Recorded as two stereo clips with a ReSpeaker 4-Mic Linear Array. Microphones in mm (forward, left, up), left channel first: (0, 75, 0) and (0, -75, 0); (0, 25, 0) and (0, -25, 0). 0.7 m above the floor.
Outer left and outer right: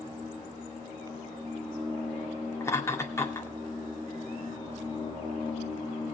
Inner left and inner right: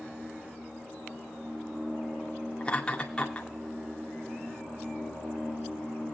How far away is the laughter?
About 2 m.